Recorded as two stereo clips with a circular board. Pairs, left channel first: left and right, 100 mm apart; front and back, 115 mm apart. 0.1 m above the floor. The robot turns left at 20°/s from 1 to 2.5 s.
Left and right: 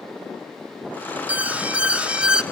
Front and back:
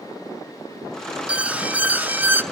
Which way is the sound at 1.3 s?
125° right.